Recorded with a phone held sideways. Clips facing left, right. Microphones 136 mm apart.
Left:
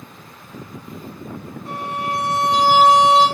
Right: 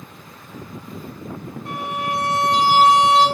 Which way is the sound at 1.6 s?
85° right.